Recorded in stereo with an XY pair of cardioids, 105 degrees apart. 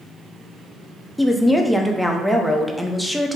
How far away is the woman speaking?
About 0.6 m.